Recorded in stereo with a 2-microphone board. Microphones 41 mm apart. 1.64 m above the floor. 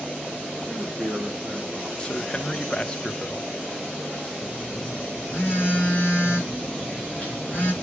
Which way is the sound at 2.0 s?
25° left (ahead or behind).